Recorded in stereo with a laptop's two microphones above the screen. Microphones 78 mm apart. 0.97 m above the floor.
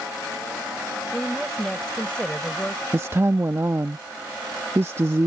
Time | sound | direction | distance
1.1 | a woman speaking | centre (ahead or behind) | ?
2.9 | a woman speaking | 35° right (ahead or behind) | ?